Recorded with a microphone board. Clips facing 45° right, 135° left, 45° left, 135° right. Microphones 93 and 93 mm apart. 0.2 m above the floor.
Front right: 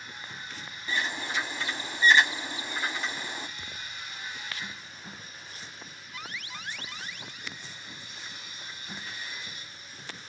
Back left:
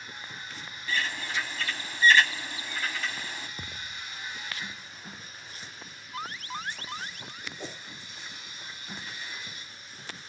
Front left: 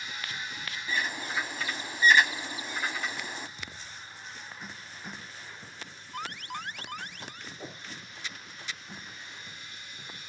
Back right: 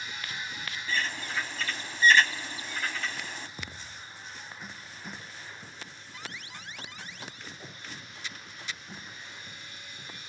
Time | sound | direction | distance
0.9 | a bird | 10° right | ?
3.6 | a thud | straight behind | ?
6.1 | an alarm | 80° left | ?
7.6 | a whoosh | 110° left | ?